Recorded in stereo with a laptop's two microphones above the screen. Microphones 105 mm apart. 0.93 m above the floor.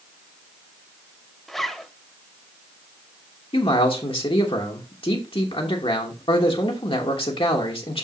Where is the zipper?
Centre (ahead or behind), 0.7 m.